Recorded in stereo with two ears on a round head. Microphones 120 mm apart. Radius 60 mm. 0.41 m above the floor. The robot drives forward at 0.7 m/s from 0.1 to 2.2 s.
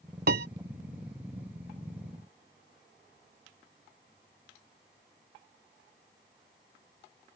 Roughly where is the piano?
Right.